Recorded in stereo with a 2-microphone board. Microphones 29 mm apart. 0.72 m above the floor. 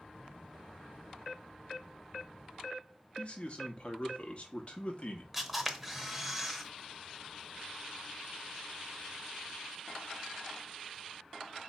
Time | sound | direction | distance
3.2 | a man speaking | 40° left (ahead or behind) | 1.0 m
5.3 | a camera shutter | 5° right (ahead or behind) | 0.7 m